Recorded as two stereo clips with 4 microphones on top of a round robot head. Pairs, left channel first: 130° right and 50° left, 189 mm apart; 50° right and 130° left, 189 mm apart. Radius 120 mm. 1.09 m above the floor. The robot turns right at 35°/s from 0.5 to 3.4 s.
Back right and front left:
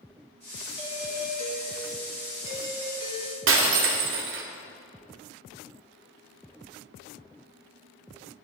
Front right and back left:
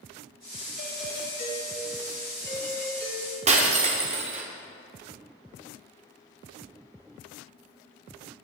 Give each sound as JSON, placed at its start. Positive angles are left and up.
{"t": 0.8, "sound": "a doorbell", "azimuth_deg": -30, "distance_m": 5.0}
{"t": 3.5, "sound": "breaking glass", "azimuth_deg": 75, "distance_m": 1.6}